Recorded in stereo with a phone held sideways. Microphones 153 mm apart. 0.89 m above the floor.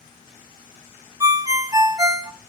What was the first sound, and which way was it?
A ringtone, 25° right (ahead or behind).